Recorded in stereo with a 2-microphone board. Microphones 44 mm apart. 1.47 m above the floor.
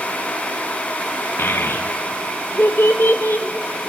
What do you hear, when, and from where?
1.4 s a child speaking: 60° left (ahead or behind), 1.0 m